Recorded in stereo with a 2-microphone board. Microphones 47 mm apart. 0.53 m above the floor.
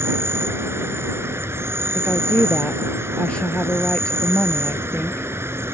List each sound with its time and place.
0.0 s an insect: 60° right (ahead or behind)
1.9 s a woman speaking: 25° left (ahead or behind)